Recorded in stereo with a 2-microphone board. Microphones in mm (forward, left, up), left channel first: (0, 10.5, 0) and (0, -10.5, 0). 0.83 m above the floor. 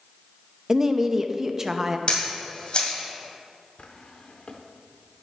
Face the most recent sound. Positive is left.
turn(degrees=50)  # may be behind; listen again after turning